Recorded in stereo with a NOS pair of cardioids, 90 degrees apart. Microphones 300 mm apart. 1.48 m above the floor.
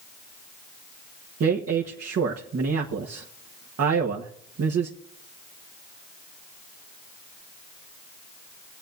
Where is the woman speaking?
55° right, 1.5 m.